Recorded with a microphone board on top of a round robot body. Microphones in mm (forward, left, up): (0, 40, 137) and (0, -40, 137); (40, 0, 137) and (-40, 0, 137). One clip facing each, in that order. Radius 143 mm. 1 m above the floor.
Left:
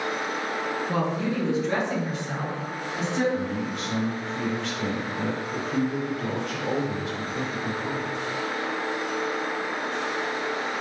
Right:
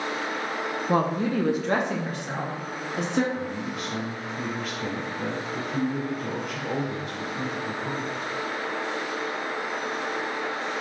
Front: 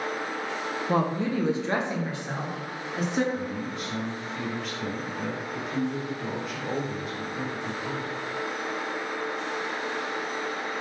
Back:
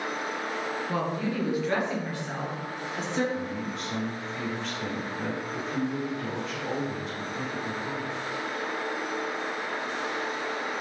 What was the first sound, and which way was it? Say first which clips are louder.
A woman speaking: right 5 dB, front 6 dB; 45° right.